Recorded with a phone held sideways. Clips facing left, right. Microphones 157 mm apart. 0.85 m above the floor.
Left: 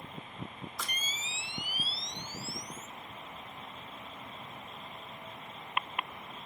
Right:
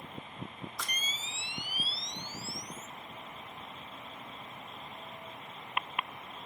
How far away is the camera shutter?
About 0.7 m.